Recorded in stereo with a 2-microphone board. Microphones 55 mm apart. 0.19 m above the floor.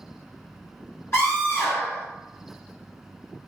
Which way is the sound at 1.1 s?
45° left (ahead or behind).